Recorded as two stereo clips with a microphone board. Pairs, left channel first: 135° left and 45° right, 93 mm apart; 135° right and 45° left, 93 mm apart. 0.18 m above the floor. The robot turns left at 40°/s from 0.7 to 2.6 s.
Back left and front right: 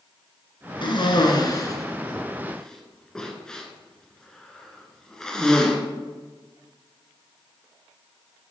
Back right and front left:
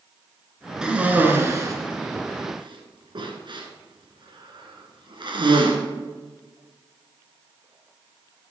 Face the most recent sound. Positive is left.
turn(degrees=55)